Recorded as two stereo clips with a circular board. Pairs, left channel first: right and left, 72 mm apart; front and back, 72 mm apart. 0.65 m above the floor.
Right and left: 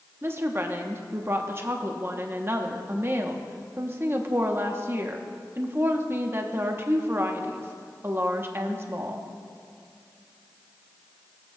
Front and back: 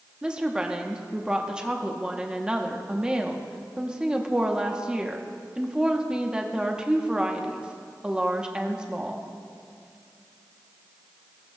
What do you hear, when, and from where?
0.2 s a woman speaking: 115° left, 0.8 m